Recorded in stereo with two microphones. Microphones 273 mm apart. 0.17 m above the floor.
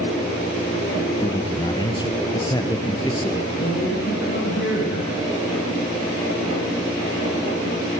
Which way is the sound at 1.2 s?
15° left (ahead or behind).